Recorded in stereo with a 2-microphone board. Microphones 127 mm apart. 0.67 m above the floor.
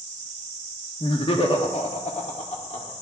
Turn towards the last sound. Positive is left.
turn(degrees=60)  # may be behind; listen again after turning